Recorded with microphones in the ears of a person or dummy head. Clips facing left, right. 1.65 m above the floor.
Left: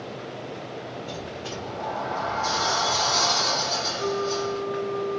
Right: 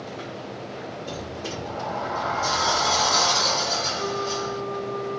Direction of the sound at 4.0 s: 60° right (ahead or behind).